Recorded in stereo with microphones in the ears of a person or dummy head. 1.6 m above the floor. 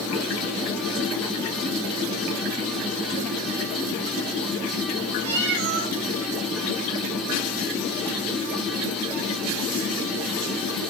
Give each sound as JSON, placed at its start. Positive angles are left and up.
{"t": 5.2, "sound": "a cat meowing", "side_deg": -70, "distance_m": 3.5}